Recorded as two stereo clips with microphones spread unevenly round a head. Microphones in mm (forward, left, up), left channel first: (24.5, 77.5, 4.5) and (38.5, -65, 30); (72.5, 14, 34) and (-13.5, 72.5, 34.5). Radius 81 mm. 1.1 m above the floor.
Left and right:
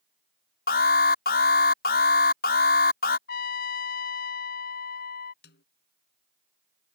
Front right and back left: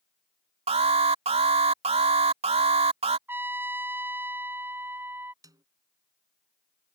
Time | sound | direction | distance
0.7 | an alarm | 125° left | ?
3.3 | a trumpet | 80° left | ?
5.4 | a snare drum | 90° left | ?